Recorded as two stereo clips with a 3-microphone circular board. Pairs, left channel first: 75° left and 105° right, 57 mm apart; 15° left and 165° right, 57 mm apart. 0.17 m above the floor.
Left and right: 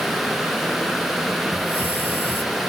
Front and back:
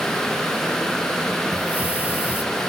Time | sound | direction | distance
1.5 | a hiss | 130° left | 1.9 m